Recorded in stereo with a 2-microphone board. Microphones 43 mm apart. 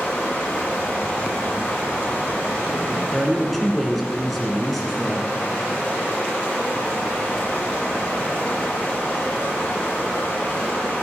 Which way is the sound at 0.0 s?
30° left (ahead or behind).